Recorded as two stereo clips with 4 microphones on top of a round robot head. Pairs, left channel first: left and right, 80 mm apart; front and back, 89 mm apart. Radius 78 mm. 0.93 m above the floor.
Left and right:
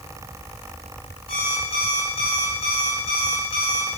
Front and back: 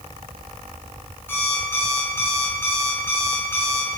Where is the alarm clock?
65° left, 6 m.